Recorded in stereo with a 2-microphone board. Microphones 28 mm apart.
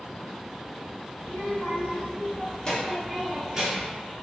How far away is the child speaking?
About 1.8 m.